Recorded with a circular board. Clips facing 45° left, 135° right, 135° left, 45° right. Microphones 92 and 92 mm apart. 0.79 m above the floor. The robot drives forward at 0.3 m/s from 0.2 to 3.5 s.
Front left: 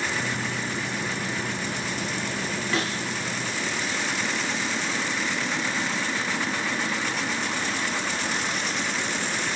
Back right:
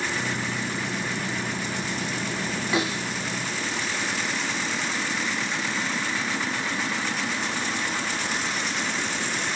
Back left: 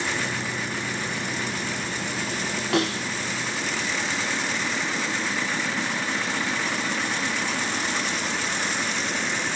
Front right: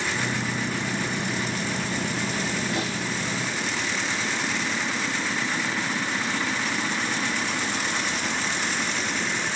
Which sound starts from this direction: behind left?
A snare drum, at 2.7 s.